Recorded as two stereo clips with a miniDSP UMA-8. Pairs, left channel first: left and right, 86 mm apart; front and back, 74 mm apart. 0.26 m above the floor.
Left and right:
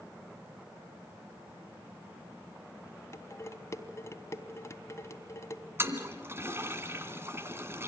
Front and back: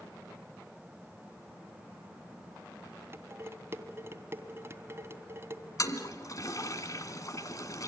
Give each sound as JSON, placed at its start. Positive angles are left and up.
{"t": 3.1, "sound": "dishes clattering", "azimuth_deg": 135, "distance_m": 1.3}
{"t": 5.8, "sound": "a toilet flushing", "azimuth_deg": -35, "distance_m": 2.0}